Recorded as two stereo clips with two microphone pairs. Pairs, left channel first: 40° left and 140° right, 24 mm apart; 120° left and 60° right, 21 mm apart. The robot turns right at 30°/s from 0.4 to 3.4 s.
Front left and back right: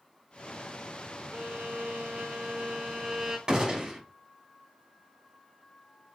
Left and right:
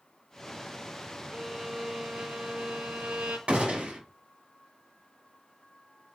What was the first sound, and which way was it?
A violin, 125° right.